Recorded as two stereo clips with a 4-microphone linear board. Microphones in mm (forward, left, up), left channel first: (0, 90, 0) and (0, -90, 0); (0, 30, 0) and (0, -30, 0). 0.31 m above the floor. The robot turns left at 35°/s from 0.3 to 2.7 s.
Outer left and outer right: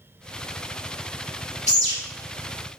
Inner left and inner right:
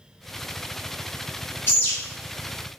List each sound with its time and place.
1.7 s a bird: 40° left (ahead or behind), 0.9 m; by 1.9 s 35° left (ahead or behind), 0.9 m